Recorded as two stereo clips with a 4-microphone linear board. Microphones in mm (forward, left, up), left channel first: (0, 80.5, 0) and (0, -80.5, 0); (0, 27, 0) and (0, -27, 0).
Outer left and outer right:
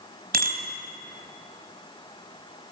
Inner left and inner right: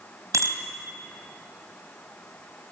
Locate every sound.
0.3 s a bicycle bell: 70° right (ahead or behind), 3 m